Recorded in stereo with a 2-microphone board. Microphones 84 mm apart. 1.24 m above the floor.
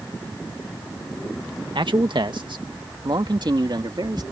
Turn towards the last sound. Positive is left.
turn(degrees=-60)  # may be behind; listen again after turning